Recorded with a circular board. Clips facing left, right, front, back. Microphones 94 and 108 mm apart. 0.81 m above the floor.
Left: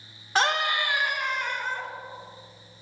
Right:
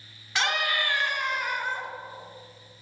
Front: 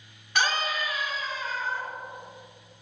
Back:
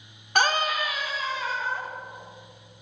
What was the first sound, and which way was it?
A scream, 135° left.